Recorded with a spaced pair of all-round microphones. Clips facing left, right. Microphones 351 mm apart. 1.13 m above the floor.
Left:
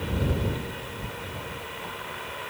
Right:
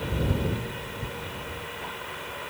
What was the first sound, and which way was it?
Only background noise.